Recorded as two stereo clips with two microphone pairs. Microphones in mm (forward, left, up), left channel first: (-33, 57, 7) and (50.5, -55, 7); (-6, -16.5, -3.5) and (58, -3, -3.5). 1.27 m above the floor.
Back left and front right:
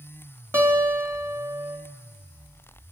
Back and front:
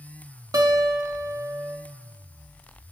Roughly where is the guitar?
Ahead.